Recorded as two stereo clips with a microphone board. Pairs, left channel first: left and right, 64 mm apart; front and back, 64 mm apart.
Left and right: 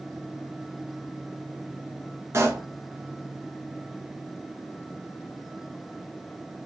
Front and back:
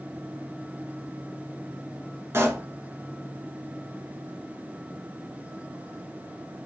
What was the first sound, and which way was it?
A pop, 135° right.